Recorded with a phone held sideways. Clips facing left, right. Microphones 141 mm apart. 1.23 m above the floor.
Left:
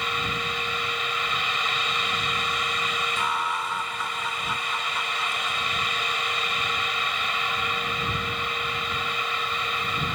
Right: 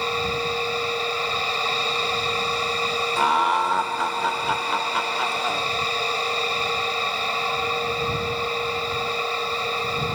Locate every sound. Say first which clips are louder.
0.0 s a fan: right 5 dB; 35° right (ahead or behind)
3.2 s laughter: right 10 dB; 70° right (ahead or behind)